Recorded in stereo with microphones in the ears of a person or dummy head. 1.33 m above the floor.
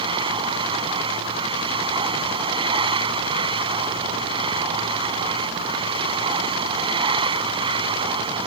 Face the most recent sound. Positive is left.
turn(degrees=-25)  # may be behind; listen again after turning